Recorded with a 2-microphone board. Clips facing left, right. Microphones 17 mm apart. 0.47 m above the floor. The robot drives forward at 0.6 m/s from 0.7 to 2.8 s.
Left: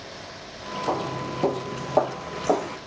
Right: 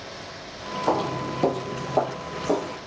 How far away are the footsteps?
About 0.7 m.